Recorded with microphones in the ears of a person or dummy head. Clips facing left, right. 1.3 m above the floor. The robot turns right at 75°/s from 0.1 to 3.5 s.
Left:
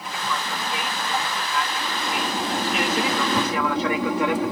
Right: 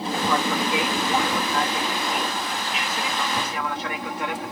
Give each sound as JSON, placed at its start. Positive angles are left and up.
{"t": 0.0, "sound": "an aircraft", "side_deg": -25}